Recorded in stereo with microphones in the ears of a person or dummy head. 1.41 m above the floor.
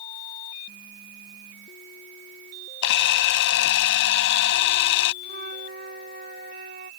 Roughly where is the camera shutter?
Left.